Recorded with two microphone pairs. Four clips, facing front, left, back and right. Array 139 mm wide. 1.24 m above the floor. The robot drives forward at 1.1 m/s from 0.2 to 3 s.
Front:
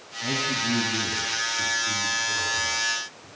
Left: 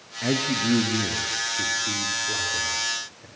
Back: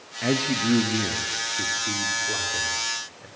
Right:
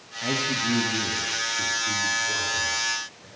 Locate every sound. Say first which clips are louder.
0.2 s a man speaking: left 3 dB, back 5 dB; 170° left, 1.9 m; by 3.3 s 175° left, 5 m